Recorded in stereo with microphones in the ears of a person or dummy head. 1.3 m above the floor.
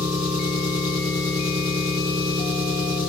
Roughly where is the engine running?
Right.